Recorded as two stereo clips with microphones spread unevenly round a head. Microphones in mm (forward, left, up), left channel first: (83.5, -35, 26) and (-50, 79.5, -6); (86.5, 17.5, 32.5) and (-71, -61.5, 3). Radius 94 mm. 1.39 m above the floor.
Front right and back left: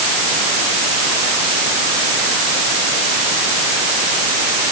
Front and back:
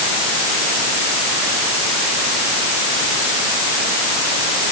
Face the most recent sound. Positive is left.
No sound to turn to.